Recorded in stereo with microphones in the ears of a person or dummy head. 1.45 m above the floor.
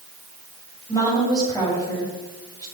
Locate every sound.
0.9 s a woman speaking: 20° left (ahead or behind), 8.5 m